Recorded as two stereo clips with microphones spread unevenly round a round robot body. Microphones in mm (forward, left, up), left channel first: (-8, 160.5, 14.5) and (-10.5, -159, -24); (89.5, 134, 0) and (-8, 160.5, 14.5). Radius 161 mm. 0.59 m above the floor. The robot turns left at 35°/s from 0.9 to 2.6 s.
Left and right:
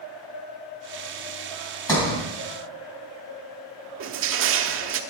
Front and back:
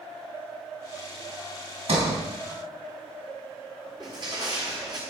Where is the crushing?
130° right, 0.8 m.